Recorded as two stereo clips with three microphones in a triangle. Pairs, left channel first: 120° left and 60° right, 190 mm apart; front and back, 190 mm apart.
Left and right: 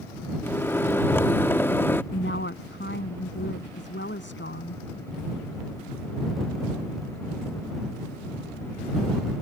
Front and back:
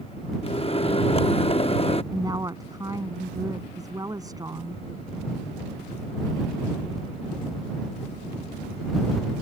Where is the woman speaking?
110° left.